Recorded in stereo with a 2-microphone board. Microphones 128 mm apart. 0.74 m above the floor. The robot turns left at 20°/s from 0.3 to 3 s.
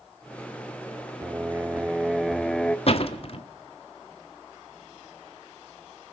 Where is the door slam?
50° left (ahead or behind), 1.2 m.